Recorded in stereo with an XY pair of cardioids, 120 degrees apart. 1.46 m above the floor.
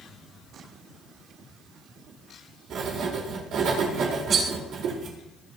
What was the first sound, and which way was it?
Writing, 65° right.